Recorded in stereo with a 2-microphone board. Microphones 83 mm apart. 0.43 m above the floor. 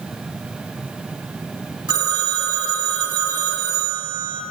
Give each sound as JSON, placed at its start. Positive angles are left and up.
{"t": 1.9, "sound": "a phone ringing", "side_deg": -75, "distance_m": 1.8}